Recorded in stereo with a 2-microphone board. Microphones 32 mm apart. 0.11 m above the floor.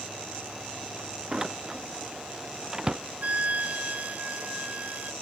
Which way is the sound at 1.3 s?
20° right (ahead or behind).